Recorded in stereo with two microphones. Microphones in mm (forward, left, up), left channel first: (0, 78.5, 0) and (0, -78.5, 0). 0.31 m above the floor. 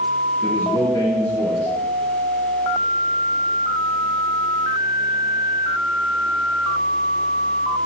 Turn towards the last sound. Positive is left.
turn(degrees=20)  # may be behind; listen again after turning